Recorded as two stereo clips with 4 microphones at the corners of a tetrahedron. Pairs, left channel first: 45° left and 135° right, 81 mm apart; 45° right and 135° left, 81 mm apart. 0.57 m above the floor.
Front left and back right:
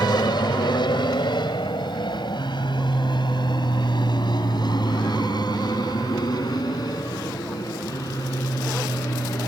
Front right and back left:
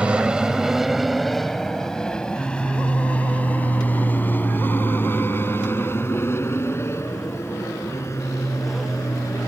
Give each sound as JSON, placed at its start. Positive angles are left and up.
{"t": 0.0, "sound": "an aircraft", "azimuth_deg": 60}